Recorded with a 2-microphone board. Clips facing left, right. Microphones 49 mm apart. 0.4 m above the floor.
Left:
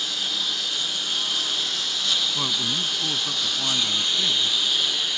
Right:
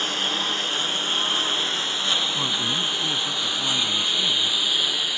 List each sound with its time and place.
0.0 s a lawn mower: 40° right (ahead or behind); by 5.2 s 10° right (ahead or behind)
2.4 s a man speaking: 5° left (ahead or behind)